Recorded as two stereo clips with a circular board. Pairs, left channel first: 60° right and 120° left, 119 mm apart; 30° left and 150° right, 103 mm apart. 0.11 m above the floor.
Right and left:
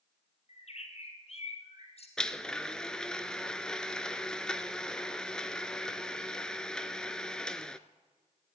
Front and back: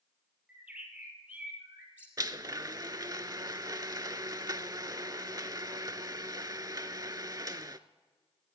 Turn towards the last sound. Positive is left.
turn(degrees=-140)